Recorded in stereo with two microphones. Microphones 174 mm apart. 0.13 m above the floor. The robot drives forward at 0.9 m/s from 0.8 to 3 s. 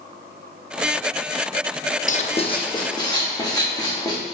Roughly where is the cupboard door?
No cupboard door in this recording.